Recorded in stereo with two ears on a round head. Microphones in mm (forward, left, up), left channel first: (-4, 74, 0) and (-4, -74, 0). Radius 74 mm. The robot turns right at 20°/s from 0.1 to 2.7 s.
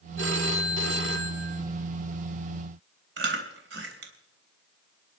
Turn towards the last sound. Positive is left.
turn(degrees=-75)  # may be behind; listen again after turning